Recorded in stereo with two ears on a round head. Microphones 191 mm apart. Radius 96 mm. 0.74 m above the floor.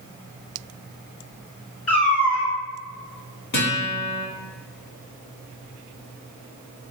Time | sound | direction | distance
1.9 | a cat meowing | 40° left (ahead or behind) | 1.6 m
3.5 | a guitar | 55° left (ahead or behind) | 1.3 m